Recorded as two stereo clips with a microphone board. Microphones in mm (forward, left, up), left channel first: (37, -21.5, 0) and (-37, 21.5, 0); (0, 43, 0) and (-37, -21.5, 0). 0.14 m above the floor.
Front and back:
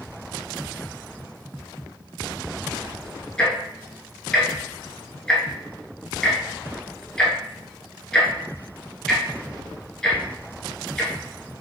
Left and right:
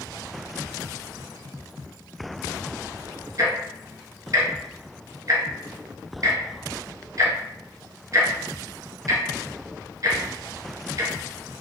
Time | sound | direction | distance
3.4 | ticking | 110° right | 1.0 m